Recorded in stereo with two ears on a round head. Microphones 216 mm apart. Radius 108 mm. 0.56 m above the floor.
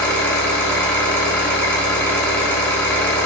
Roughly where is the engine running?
Centre.